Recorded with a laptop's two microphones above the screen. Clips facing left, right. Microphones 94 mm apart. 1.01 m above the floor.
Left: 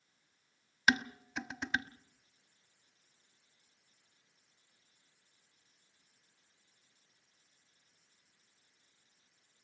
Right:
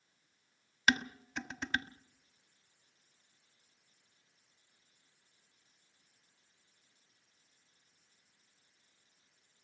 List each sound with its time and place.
0.9 s dishes clattering: 5° left (ahead or behind), 1.3 m